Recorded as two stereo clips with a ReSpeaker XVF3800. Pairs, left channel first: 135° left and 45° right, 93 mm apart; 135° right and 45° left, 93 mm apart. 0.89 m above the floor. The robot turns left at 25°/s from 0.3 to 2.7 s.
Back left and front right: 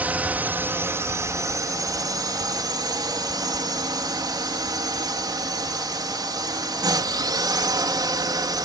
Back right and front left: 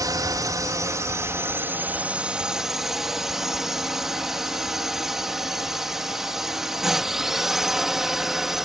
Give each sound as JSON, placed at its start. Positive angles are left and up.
{"t": 0.0, "sound": "a drone", "azimuth_deg": 20}